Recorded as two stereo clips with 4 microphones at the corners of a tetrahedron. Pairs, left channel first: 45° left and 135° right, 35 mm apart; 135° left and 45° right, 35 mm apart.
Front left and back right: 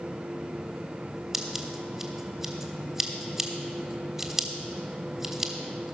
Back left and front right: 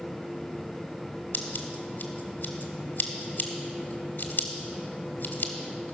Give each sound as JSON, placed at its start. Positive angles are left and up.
{"t": 1.3, "sound": "scissors", "azimuth_deg": 150, "distance_m": 1.3}